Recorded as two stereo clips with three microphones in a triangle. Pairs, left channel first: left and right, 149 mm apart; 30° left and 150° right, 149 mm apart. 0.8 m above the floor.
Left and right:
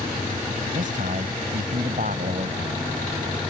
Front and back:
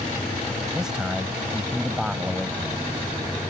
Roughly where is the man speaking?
Ahead right.